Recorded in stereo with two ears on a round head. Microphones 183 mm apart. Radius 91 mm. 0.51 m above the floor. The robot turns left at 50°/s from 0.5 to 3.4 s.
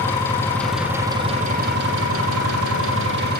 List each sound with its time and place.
0.0 s an engine running: 10° left, 7.5 m; by 3.4 s 135° right, 7.5 m